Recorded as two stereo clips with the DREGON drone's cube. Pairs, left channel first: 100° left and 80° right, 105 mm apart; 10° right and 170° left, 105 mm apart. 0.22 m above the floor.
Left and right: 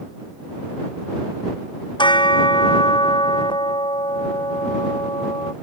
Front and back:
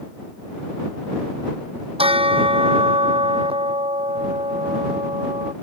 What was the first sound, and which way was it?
A bell, 140° left.